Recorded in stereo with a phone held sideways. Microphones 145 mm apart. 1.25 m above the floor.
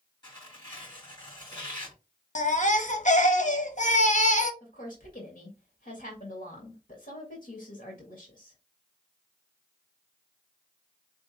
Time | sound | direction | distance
0.2 | tearing paper | 30° left (ahead or behind) | 3.5 m
2.4 | a baby crying | 55° left (ahead or behind) | 0.7 m
4.6 | a woman speaking | 90° left | 1.8 m